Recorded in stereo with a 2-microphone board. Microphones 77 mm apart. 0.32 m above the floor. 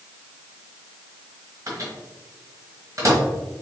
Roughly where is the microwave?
Right.